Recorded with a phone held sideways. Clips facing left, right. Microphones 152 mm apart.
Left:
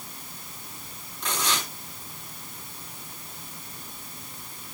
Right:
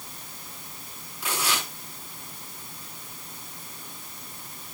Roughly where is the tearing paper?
Centre.